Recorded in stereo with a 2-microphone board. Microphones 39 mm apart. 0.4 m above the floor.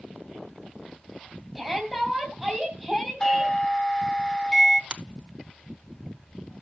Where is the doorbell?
20° left (ahead or behind), 1.3 m.